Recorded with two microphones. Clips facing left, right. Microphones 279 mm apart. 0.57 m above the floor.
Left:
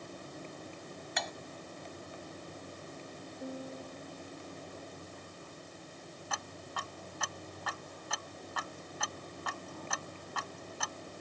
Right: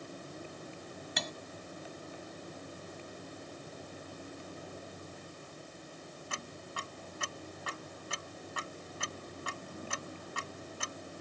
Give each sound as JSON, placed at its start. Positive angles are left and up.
{"t": 1.2, "sound": "cutlery clinking", "side_deg": -40}
{"t": 3.4, "sound": "a piano", "side_deg": 85}
{"t": 6.3, "sound": "ticking", "side_deg": -30}